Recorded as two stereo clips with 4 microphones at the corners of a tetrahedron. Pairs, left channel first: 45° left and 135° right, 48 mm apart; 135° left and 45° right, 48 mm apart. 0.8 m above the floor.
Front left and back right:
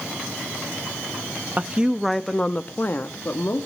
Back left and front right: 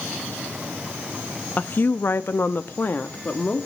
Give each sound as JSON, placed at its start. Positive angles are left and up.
{"t": 1.6, "sound": "a woman speaking", "azimuth_deg": 180, "distance_m": 0.7}